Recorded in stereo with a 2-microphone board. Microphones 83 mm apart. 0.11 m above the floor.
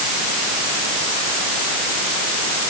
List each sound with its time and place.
Only background noise.